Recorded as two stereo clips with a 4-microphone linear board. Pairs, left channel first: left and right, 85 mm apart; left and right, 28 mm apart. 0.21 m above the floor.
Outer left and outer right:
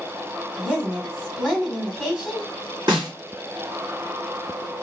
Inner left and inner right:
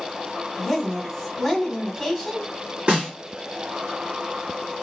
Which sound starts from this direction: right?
A snare drum, at 2.9 s.